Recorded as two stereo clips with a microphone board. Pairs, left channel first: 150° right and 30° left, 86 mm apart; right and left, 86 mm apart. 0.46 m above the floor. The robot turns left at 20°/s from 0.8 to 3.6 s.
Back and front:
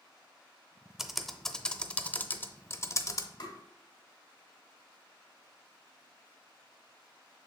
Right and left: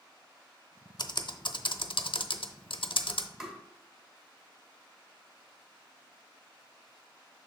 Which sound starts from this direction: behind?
Tapping, at 3.4 s.